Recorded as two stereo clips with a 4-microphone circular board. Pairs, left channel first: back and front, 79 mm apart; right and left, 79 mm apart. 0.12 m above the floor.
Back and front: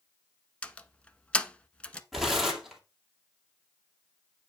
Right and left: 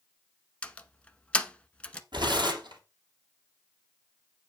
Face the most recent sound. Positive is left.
turn(degrees=90)